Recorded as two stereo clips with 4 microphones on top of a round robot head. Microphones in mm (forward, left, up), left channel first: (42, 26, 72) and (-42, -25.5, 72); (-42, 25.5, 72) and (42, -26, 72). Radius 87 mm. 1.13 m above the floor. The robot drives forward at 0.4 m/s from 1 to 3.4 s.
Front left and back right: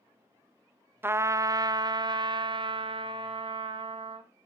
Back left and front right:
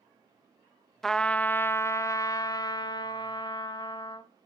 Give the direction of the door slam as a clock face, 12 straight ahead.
I don't hear a door slam.